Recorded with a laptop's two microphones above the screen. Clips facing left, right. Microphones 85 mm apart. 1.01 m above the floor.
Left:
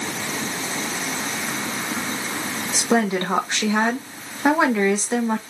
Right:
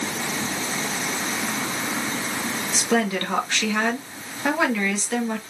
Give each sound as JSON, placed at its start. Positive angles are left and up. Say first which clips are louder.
{"t": 2.7, "sound": "a woman speaking", "louder": "left 3 dB", "side_deg": 25, "distance_m": 1.2}